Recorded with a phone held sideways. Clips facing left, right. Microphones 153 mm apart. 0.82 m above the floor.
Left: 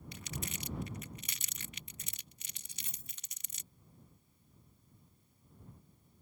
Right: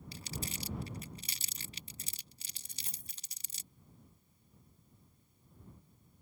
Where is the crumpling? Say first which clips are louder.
Right 1 dB; 35° right (ahead or behind).